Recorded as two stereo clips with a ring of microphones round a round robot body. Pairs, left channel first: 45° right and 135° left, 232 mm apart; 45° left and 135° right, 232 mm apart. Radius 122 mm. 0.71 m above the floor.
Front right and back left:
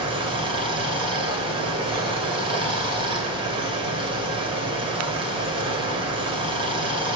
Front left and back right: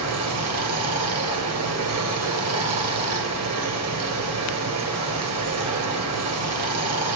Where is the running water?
155° right, 2.5 m.